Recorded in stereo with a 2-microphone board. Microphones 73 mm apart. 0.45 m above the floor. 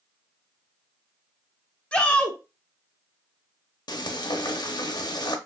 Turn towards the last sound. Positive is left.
turn(degrees=70)  # may be behind; listen again after turning